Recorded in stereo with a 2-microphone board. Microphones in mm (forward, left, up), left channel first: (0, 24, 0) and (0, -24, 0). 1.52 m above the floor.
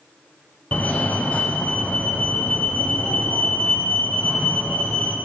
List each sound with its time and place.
0.7 s a fire alarm: 35° left (ahead or behind), 0.7 m